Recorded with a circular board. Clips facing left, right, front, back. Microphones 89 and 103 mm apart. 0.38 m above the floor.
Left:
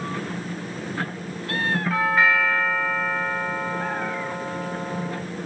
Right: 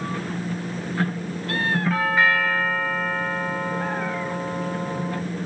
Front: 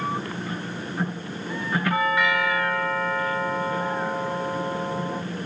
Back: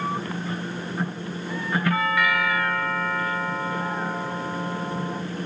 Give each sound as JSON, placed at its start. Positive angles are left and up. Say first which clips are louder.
{"t": 1.9, "sound": "a doorbell", "louder": "left 1 dB, front 2 dB", "azimuth_deg": 0, "distance_m": 1.3}